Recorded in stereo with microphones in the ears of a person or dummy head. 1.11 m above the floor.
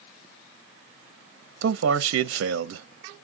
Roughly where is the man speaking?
Right.